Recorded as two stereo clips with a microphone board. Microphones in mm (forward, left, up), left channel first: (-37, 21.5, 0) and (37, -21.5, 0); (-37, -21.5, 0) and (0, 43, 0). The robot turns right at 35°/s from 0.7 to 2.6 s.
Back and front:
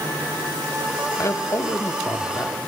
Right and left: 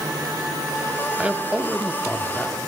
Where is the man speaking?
120° left, 0.9 m; by 2.6 s 170° left, 0.9 m.